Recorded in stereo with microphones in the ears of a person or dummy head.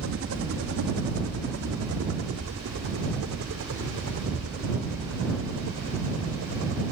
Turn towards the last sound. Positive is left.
turn(degrees=-65)  # may be behind; listen again after turning